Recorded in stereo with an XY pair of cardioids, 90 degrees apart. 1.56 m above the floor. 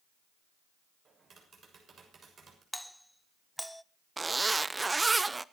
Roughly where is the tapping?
Ahead right.